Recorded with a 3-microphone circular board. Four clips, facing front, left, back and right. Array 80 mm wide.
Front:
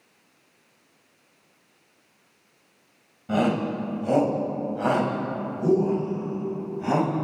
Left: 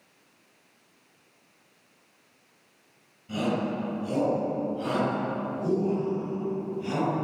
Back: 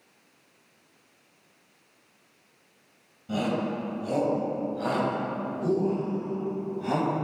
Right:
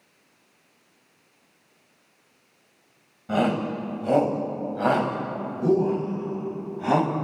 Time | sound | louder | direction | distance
3.3 | a shout | right 4 dB, front 5 dB | 60° right | 5.5 m